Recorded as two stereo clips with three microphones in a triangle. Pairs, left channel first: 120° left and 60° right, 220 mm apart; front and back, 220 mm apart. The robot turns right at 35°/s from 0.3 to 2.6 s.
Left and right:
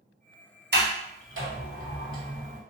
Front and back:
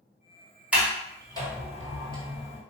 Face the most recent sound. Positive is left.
turn(degrees=-30)